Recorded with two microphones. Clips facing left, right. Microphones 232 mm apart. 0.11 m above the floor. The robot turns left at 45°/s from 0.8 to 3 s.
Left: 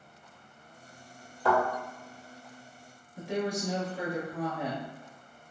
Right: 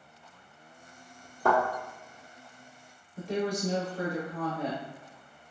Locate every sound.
1.4 s a thud: 45° right (ahead or behind), 1.5 m; by 1.6 s 40° right (ahead or behind), 1.5 m
3.2 s a woman speaking: 10° left (ahead or behind), 1.5 m